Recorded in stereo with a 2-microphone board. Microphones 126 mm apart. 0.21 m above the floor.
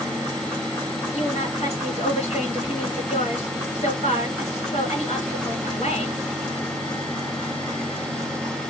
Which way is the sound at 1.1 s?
55° left (ahead or behind).